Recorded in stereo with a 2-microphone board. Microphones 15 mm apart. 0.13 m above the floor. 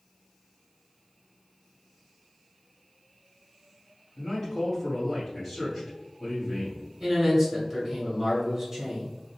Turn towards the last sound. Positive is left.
turn(degrees=-20)  # may be behind; listen again after turning